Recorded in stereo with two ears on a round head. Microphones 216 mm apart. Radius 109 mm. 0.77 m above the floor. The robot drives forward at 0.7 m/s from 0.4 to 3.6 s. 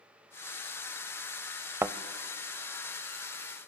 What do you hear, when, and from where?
1.8 s a thud: 10° right (ahead or behind), 0.5 m